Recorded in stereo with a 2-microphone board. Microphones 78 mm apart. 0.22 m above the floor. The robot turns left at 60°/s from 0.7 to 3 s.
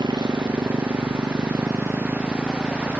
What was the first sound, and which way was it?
A motorcycle, 70° right.